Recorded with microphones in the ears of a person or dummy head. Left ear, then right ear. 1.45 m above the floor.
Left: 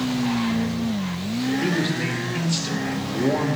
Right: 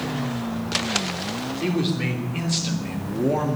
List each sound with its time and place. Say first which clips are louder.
1.6 s a man speaking: right 1 dB; centre (ahead or behind), 3.5 m